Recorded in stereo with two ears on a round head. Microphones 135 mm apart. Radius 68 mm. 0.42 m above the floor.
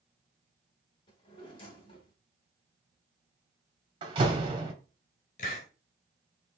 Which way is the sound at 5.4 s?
55° left (ahead or behind).